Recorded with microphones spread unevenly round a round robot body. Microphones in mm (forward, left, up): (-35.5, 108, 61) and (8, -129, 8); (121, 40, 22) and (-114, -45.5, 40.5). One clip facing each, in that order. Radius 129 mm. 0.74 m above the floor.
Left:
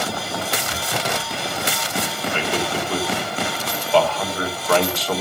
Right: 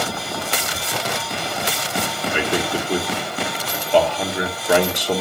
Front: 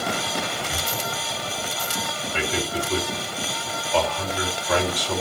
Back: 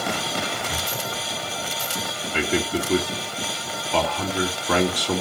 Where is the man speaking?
150° right, 1.9 m.